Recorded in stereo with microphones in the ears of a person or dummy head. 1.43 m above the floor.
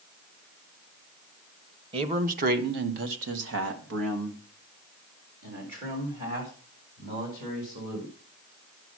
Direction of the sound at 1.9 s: 30° right (ahead or behind).